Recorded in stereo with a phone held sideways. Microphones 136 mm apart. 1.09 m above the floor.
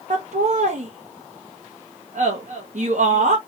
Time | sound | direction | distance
0.1 | laughter | 65° right (ahead or behind) | 0.8 m